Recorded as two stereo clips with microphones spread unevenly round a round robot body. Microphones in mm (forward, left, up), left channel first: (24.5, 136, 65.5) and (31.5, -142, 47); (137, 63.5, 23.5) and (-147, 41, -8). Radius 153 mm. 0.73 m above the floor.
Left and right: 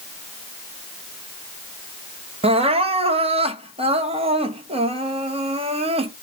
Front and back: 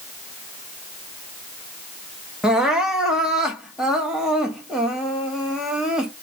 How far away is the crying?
About 0.9 m.